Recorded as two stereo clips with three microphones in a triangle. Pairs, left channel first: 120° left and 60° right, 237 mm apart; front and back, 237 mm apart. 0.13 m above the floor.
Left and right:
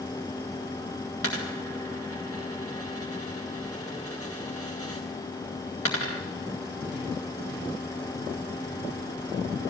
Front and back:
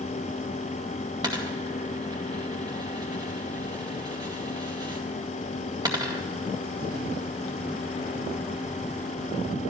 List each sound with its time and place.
1.2 s a dropped coin: 105° left, 2.5 m